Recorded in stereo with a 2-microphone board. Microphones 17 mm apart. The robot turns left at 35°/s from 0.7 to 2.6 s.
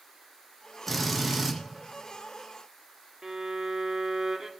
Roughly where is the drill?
Centre.